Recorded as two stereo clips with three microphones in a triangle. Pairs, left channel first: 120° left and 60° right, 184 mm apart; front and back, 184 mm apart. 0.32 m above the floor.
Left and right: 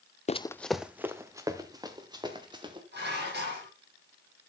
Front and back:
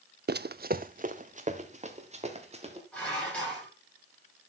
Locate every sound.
0.3 s running footsteps: 170° left, 0.5 m; by 2.8 s 125° right, 3.5 m
2.9 s dishes clattering: 85° right, 8.5 m